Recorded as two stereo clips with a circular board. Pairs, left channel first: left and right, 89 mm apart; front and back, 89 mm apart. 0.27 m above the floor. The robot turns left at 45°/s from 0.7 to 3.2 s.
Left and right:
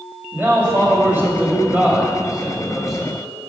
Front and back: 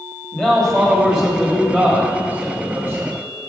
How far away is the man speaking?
About 1.4 m.